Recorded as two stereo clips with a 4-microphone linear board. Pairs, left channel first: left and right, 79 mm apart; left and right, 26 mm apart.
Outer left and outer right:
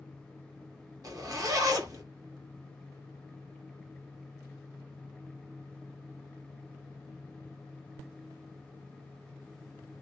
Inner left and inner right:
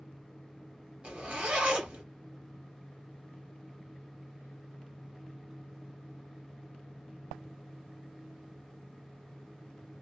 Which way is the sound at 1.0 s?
45° right (ahead or behind).